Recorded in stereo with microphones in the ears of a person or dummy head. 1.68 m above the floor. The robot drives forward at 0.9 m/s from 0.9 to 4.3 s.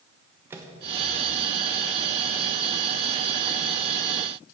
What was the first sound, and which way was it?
A microwave, 15° right (ahead or behind).